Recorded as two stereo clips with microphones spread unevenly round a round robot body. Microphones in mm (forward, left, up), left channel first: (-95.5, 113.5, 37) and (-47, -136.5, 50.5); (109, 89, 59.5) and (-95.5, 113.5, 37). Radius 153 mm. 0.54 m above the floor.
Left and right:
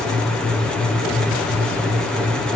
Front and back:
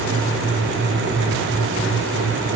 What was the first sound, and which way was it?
Only background noise.